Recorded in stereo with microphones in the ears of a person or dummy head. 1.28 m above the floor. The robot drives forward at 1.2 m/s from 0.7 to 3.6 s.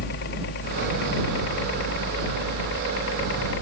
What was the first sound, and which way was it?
A helicopter, 55° left (ahead or behind).